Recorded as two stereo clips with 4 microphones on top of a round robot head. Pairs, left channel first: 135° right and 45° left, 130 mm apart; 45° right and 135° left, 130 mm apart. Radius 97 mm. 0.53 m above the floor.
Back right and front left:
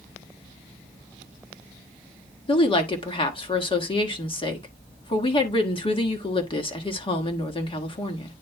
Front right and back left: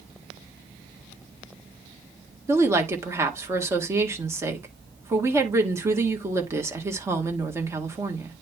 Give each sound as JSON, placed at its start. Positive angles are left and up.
{"t": 2.5, "sound": "a woman speaking", "azimuth_deg": -165, "distance_m": 1.5}